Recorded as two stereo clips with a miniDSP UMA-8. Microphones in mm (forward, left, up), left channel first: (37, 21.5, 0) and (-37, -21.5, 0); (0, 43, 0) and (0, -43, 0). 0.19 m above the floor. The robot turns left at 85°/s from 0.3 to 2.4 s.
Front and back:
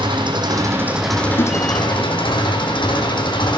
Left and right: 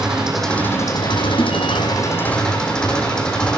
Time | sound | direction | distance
0.0 | an engine running | 175° right | 7.5 m
1.4 | a whoosh | 45° left | 1.6 m